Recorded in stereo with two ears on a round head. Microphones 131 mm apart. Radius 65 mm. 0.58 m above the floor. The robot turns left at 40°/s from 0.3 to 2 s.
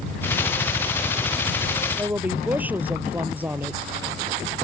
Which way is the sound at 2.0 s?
15° right (ahead or behind).